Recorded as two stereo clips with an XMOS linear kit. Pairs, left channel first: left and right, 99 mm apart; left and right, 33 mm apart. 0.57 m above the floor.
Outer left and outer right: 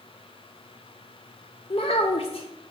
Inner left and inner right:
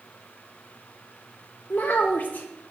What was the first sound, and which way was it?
A child speaking, 70° left (ahead or behind).